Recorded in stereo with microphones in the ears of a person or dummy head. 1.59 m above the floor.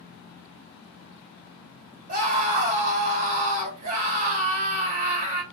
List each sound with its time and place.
2.1 s a scream: 35° right (ahead or behind), 2 m